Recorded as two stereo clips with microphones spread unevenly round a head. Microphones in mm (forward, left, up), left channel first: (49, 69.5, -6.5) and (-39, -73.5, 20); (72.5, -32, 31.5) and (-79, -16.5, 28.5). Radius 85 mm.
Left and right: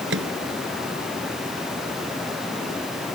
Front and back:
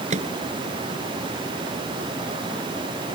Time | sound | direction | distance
0.1 | a microwave | 145° right | ?